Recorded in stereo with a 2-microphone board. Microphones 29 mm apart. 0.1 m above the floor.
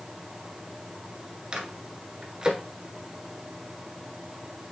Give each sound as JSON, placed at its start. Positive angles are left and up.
{"t": 1.5, "sound": "a microwave", "side_deg": -30, "distance_m": 1.3}